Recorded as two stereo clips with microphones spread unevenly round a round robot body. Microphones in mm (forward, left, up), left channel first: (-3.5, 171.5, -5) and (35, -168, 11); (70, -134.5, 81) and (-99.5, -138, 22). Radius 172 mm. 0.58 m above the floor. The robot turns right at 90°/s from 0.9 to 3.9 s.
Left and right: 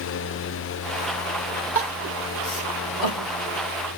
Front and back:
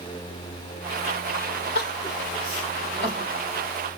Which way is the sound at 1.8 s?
Straight ahead.